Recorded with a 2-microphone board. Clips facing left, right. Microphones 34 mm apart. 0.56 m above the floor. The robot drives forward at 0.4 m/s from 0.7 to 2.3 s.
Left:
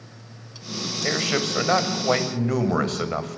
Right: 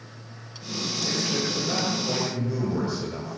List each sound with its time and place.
1.0 s a man speaking: 70° left (ahead or behind), 3 m